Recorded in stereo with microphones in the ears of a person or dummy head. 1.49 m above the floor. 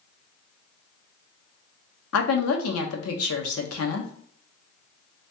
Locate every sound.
2.1 s a woman speaking: 75° left (ahead or behind), 0.9 m